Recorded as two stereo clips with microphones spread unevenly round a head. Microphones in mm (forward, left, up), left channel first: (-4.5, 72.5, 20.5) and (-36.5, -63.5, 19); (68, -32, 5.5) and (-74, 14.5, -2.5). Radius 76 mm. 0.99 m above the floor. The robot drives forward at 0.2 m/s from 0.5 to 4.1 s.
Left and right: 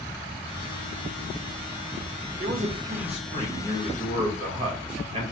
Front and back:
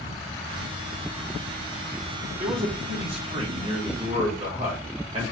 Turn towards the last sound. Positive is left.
turn(degrees=-150)